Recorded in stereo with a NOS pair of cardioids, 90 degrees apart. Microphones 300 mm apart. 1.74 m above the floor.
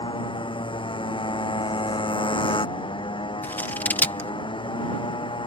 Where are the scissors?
5° left.